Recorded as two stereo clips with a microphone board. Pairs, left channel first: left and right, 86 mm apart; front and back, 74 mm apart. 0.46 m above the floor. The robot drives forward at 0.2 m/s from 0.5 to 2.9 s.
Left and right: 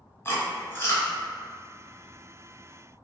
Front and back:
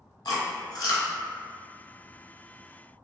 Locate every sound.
0.2 s chewing: 30° left, 0.8 m